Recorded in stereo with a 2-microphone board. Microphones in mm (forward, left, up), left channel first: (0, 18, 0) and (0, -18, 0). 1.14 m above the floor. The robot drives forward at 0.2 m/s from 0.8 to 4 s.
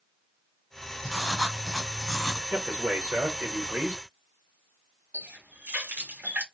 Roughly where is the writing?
Centre.